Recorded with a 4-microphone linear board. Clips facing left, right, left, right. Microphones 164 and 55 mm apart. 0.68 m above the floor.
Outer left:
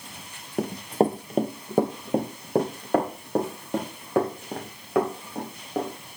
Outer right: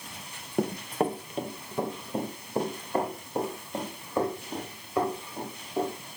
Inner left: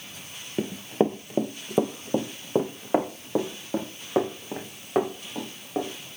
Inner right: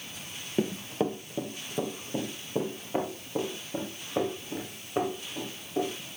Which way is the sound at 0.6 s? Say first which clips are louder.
Outer left 4 dB, inner left 4 dB; centre (ahead or behind).